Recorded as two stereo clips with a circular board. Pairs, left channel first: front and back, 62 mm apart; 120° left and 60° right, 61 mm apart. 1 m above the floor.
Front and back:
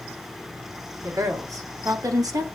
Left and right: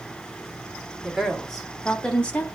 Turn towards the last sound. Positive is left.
turn(degrees=-175)